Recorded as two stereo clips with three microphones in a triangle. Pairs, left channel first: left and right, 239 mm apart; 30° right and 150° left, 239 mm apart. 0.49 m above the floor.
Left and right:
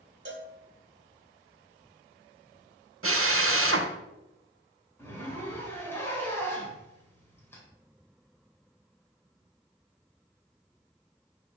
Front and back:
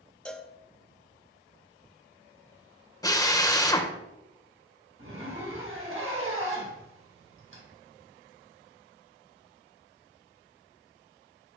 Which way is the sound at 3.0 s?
105° right.